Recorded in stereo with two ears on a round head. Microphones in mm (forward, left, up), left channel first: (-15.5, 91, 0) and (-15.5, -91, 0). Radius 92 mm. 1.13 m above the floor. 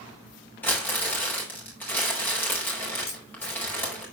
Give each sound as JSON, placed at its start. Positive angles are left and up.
{"t": 0.6, "sound": "crumpling", "side_deg": 10, "distance_m": 4.5}
{"t": 3.1, "sound": "a camera shutter", "side_deg": 45, "distance_m": 8.0}